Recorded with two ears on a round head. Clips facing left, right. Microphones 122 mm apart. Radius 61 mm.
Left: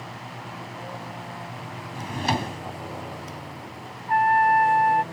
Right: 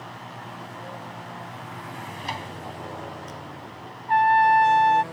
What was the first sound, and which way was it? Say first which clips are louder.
A drawer: left 9 dB; 65° left (ahead or behind).